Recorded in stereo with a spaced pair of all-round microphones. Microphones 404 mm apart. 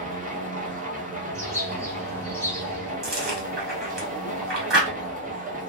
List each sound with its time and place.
0.0 s a machine running: 20° right (ahead or behind), 0.8 m
1.3 s a bird: 5° left (ahead or behind), 1.1 m
3.0 s chewing: 80° right, 1.1 m